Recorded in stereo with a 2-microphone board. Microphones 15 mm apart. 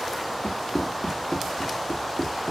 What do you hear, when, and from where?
0.4 s running footsteps: 70° left (ahead or behind), 3 m; by 2.5 s 45° left (ahead or behind), 1.9 m